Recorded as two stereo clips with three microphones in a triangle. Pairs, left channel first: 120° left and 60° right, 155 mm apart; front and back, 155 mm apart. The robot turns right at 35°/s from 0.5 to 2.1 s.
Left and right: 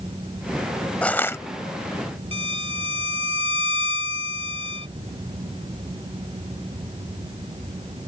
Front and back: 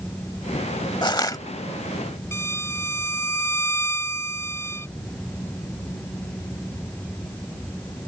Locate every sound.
1.0 s crushing: 40° left; by 1.4 s 55° left
2.3 s a violin: 60° right